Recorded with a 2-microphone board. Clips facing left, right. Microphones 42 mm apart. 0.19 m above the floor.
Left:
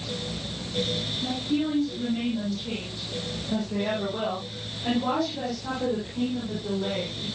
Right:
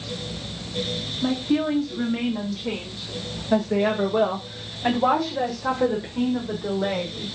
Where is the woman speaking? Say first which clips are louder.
Right 5 dB; 55° right (ahead or behind), 9 m; by 7.3 s 40° right (ahead or behind), 6.5 m.